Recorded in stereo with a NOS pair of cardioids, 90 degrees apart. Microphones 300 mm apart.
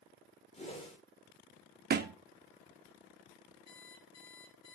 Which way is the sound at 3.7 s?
60° left.